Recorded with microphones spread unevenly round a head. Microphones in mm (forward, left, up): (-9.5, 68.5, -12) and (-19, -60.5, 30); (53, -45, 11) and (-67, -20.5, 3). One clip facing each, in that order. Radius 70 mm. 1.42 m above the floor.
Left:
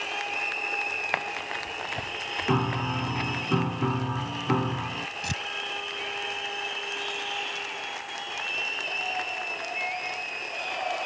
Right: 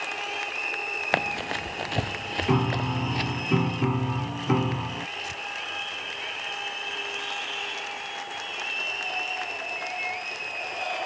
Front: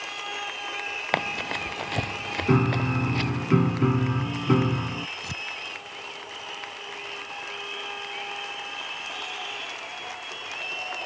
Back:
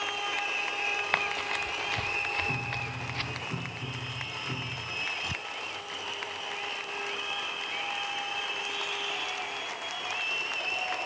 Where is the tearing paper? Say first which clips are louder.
Left 3 dB, front 1 dB; 60° left.